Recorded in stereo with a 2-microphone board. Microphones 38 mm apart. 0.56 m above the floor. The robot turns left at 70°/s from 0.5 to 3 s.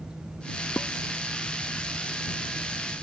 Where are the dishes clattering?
65° left (ahead or behind); by 0.9 s 75° left (ahead or behind).